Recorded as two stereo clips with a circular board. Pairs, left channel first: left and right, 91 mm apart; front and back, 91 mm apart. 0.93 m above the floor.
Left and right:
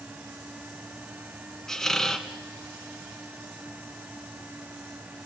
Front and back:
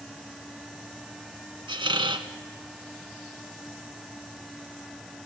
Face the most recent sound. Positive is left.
turn(degrees=175)